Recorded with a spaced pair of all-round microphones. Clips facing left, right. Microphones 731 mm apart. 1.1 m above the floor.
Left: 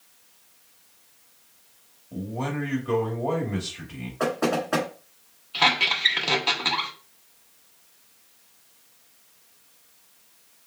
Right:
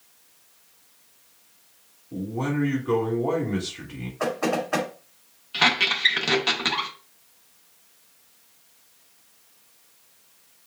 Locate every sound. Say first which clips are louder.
2.1 s a man speaking: right 4 dB; 15° left (ahead or behind), 2.5 m
4.2 s knocking: left 1 dB; 65° left (ahead or behind), 1.9 m
5.5 s a squeak: right 1 dB; 50° right (ahead or behind), 0.9 m